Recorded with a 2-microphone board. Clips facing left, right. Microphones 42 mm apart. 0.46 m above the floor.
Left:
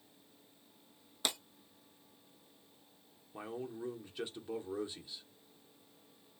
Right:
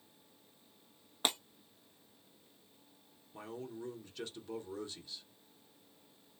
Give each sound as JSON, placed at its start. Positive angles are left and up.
{"t": 1.2, "sound": "breaking glass", "side_deg": -35, "distance_m": 0.9}
{"t": 3.3, "sound": "a man speaking", "side_deg": 20, "distance_m": 0.7}